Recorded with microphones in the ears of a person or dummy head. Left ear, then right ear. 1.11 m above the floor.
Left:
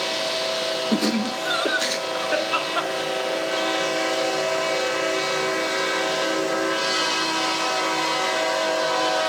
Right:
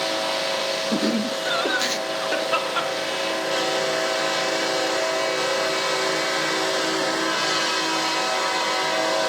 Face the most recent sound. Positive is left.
turn(degrees=-20)  # may be behind; listen again after turning